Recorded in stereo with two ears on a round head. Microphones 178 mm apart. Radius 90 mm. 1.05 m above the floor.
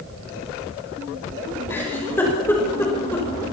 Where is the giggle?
10° left (ahead or behind), 5.5 m.